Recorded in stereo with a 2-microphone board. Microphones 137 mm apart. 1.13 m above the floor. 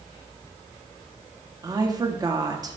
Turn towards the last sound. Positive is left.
turn(degrees=-25)  # may be behind; listen again after turning